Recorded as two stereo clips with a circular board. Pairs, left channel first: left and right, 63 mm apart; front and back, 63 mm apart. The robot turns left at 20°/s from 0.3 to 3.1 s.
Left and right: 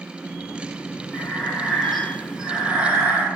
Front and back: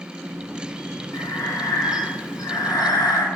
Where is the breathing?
20° left, 0.5 m; by 3.2 s 20° right, 0.5 m.